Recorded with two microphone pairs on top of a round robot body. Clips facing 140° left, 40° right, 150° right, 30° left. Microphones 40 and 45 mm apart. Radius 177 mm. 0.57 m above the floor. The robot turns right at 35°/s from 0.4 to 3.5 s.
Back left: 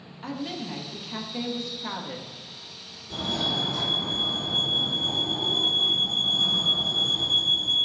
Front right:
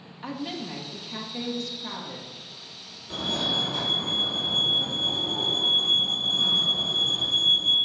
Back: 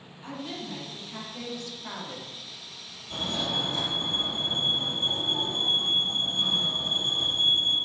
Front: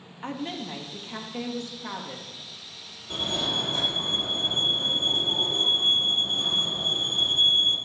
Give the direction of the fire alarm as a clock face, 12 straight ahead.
12 o'clock.